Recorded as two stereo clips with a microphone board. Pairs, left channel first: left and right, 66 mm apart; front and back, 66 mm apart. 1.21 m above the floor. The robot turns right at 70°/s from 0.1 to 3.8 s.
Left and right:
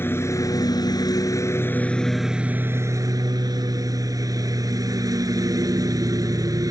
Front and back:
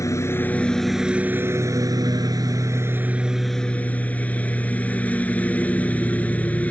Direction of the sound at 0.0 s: 35° left.